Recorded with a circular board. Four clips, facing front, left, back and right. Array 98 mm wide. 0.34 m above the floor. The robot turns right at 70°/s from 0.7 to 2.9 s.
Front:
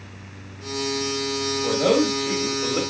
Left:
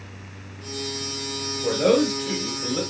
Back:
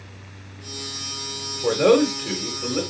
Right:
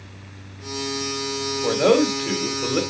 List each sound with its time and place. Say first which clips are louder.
1.6 s a man speaking: right 2 dB, back 3 dB; 175° right, 1.7 m; by 2.8 s 95° right, 1.7 m